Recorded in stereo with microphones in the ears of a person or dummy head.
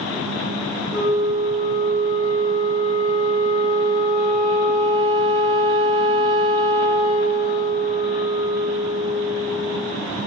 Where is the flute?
50° left (ahead or behind), 1.6 m.